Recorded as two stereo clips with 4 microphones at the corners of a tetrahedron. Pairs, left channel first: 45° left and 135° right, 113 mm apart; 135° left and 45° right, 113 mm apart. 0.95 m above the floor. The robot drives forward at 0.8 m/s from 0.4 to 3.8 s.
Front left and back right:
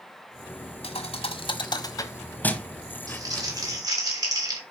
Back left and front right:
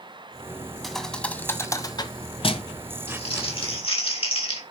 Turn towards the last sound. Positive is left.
turn(degrees=170)